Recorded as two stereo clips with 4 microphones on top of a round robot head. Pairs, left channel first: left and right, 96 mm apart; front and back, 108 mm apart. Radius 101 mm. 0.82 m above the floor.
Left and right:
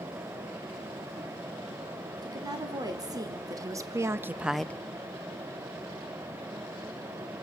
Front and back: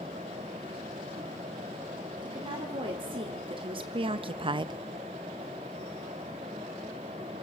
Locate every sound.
2.2 s a woman speaking: 135° right, 3 m; by 4.7 s 155° left, 0.6 m